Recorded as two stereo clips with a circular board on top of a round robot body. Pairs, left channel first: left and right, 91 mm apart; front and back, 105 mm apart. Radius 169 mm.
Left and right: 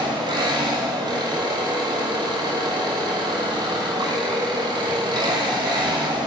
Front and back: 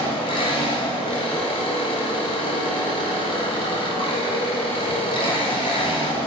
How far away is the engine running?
About 1.5 m.